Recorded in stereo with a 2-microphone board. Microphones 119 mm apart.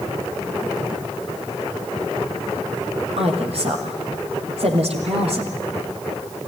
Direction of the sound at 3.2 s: 60° right (ahead or behind).